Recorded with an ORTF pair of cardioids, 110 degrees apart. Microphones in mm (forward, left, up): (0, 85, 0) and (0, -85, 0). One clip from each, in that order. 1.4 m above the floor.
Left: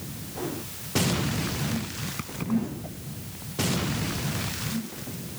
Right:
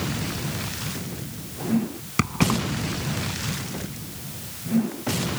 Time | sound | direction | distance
2.2 | keys jangling | 65° right | ?